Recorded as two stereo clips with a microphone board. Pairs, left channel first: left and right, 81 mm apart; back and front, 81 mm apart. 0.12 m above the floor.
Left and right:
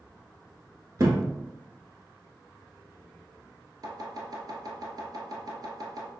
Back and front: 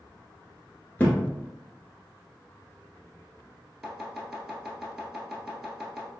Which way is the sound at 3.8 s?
85° right.